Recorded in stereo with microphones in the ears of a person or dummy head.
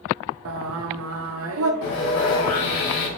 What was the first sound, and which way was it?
Singing, 75° right (ahead or behind).